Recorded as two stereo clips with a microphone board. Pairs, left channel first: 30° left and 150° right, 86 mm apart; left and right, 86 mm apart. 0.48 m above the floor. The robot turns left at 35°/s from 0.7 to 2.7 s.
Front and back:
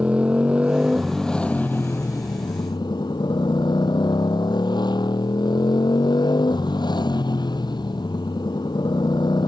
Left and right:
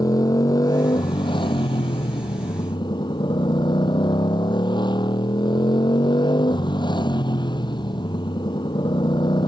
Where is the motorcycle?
130° left; by 9.5 s 60° left.